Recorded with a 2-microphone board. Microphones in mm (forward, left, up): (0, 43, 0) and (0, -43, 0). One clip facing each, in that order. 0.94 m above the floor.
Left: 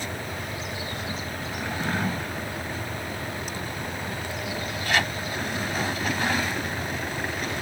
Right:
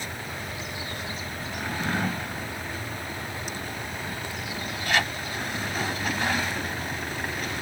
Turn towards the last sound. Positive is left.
No sound to turn to.